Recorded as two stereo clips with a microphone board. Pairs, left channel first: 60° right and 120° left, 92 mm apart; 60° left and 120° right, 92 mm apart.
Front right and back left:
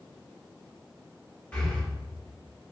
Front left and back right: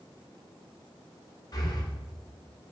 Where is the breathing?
20° left, 2 m.